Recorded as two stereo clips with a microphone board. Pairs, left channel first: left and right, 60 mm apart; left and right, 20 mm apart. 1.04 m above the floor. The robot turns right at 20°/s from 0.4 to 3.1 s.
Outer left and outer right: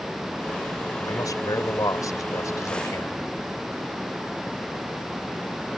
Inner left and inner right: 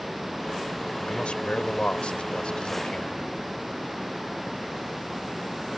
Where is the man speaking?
85° left; by 3.2 s 125° left.